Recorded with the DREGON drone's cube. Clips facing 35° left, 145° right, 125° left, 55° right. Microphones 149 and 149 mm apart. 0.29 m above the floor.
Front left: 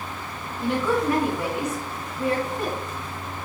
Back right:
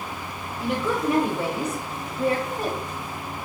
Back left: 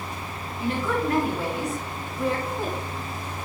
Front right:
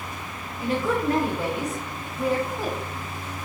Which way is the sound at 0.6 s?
70° right.